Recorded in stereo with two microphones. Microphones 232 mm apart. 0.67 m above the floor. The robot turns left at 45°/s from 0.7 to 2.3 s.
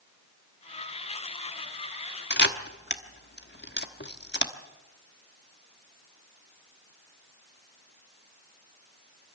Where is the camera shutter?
50° left (ahead or behind), 1.2 m.